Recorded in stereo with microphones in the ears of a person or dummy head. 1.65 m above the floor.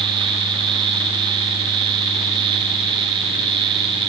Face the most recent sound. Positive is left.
No sound to turn to.